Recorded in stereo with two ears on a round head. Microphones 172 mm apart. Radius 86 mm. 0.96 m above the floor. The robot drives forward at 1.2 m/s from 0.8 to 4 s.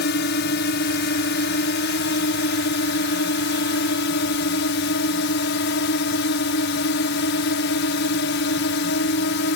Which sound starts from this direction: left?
A drone, at 0.0 s.